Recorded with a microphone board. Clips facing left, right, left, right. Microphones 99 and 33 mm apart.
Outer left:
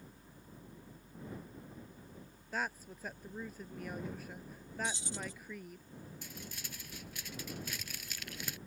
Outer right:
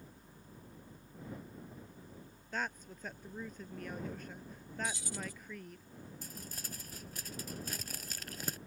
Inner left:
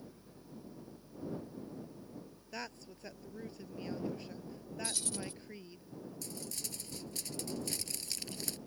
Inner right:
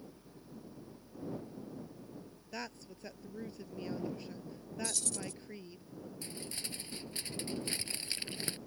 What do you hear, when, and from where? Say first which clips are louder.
2.5 s a woman speaking: outer left 1 dB, inner right 1 dB; 5° left (ahead or behind)
4.8 s keys jangling: even, even; 25° left (ahead or behind)
6.2 s crumpling: even, inner right 3 dB; 40° right (ahead or behind)